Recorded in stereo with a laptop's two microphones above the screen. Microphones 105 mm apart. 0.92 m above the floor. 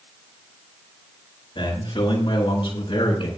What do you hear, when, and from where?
1.6 s a man speaking: 55° left (ahead or behind), 9.5 m; by 3.3 s 60° left (ahead or behind), 8.5 m